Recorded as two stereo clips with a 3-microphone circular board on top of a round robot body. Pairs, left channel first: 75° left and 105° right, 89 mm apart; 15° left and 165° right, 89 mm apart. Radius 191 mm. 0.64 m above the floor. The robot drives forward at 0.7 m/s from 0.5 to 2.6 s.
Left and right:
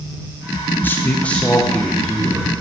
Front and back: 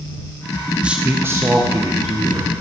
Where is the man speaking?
125° left, 1.1 m; by 2.5 s 165° left, 1.8 m.